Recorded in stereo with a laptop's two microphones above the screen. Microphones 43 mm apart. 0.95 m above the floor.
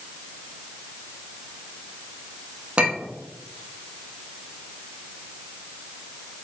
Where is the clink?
25° right (ahead or behind), 0.6 m.